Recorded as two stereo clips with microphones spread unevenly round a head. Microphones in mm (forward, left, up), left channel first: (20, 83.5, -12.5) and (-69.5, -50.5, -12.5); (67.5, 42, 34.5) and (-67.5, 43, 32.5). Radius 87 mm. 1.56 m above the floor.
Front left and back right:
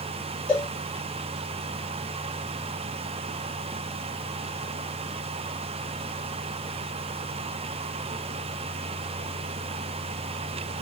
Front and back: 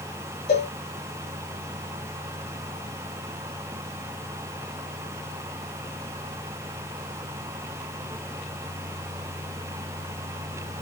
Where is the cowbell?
30° right, 2.5 m.